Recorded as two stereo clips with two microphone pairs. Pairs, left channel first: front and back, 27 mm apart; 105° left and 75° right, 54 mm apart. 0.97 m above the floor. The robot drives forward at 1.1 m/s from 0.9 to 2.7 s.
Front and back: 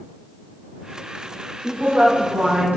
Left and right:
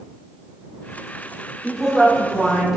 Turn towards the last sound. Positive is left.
turn(degrees=-160)